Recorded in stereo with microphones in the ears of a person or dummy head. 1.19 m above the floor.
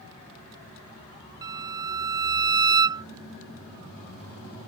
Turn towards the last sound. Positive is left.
turn(degrees=-20)  # may be behind; listen again after turning